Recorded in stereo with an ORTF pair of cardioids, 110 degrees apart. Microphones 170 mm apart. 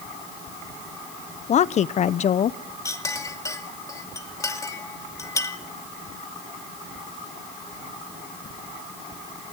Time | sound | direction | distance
1.5 | a woman speaking | 40° left | 0.9 m
2.9 | a clink | 20° left | 2.5 m